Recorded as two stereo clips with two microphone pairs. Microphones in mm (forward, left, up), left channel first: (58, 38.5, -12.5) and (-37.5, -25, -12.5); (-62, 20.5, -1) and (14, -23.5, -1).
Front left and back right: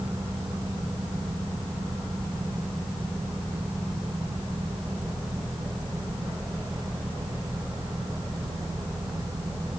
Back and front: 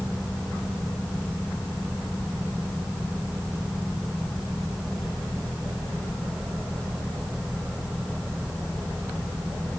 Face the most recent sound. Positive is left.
No sound to turn to.